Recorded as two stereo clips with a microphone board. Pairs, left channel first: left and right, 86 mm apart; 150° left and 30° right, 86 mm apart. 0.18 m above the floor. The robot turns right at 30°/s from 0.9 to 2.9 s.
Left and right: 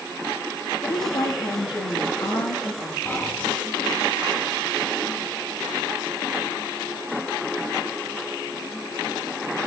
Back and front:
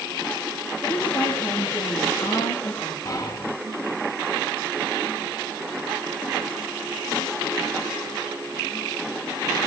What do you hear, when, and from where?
0.8 s a woman speaking: 70° left, 5 m; by 3.0 s 130° left, 5 m
3.0 s whispering: 135° left, 1.6 m